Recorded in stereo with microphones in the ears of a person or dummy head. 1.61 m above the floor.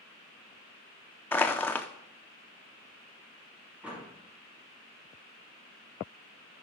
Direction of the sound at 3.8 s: 5° right (ahead or behind).